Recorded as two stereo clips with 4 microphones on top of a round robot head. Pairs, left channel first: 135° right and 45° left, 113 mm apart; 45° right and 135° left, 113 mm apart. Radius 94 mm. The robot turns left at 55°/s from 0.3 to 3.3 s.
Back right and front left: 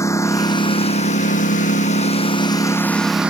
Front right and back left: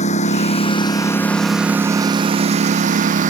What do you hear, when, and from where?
0.0 s a lawn mower: 70° right; by 3.3 s 125° left